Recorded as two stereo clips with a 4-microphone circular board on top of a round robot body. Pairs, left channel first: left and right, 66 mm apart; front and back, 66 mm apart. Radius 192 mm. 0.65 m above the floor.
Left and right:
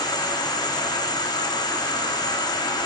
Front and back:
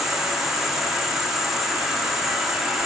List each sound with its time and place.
0.0 s an insect: 95° left, 0.9 m